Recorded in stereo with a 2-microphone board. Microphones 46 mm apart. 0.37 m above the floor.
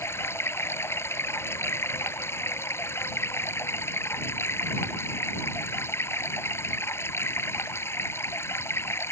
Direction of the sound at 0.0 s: 65° left (ahead or behind).